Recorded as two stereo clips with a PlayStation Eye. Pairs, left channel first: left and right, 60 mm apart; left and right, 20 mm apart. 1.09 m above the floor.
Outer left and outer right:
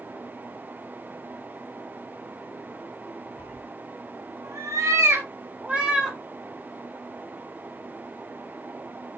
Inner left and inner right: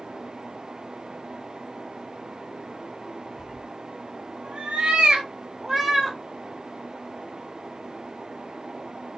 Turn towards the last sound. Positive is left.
turn(degrees=-10)  # may be behind; listen again after turning